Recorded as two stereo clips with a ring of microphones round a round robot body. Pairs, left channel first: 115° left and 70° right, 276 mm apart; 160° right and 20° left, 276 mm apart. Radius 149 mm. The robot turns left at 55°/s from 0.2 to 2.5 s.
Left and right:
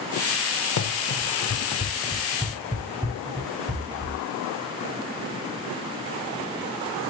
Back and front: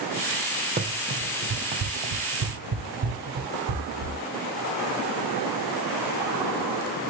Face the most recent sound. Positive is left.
turn(degrees=5)